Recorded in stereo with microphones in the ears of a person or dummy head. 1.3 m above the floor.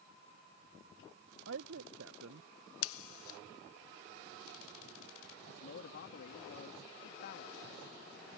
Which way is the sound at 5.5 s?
50° left (ahead or behind).